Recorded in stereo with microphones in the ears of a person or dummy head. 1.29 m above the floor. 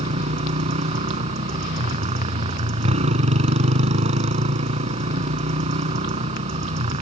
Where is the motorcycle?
35° right (ahead or behind).